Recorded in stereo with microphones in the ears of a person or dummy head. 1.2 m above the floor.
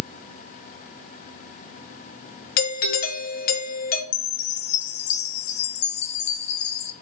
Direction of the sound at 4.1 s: 50° left (ahead or behind).